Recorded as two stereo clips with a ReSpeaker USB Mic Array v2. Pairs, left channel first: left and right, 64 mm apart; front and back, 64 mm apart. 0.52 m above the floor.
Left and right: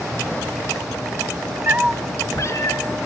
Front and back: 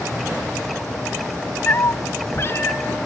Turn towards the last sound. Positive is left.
turn(degrees=60)